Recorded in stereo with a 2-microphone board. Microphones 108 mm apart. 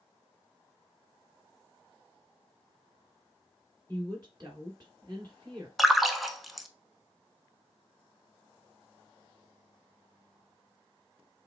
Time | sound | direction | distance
3.9 | a woman speaking | 35° right (ahead or behind) | 2.5 m
5.8 | a splash | centre (ahead or behind) | 0.5 m